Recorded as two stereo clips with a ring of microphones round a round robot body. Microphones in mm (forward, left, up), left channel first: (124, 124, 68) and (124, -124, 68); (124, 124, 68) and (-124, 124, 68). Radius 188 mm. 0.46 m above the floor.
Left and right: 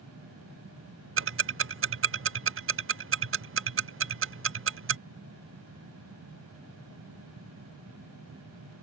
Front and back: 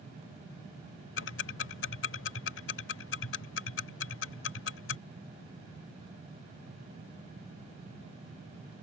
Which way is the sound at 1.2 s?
50° right.